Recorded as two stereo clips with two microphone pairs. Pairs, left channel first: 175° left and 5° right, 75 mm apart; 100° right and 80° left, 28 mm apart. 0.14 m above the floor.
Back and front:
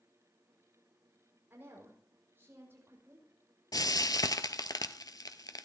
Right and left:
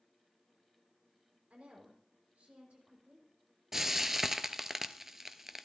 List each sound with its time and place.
1.5 s a woman speaking: 50° left, 5.5 m
3.7 s frying: 150° left, 0.6 m